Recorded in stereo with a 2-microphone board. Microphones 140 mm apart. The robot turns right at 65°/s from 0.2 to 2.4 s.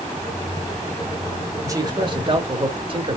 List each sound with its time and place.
1.6 s a man speaking: 145° right, 1.3 m; by 3.2 s 95° right, 1.3 m